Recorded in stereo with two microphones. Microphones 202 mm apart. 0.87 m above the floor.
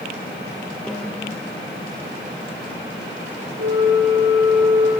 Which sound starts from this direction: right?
A flute, at 3.6 s.